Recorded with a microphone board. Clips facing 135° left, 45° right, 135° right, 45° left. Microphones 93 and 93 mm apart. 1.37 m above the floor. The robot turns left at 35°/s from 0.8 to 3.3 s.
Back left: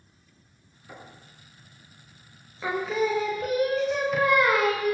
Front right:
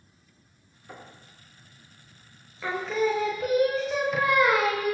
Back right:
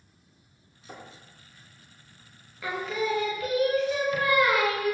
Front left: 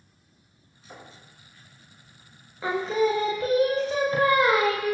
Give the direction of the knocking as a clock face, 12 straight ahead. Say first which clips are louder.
Even, back right 2 dB; 4 o'clock.